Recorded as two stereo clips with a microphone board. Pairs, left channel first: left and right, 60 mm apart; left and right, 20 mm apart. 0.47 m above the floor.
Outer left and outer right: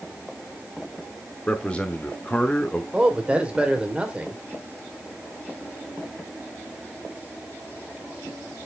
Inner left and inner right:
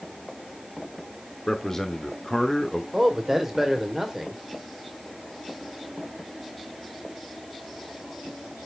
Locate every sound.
1.5 s a man speaking: 20° left (ahead or behind), 1.0 m
2.9 s a man speaking: 20° right (ahead or behind), 1.9 m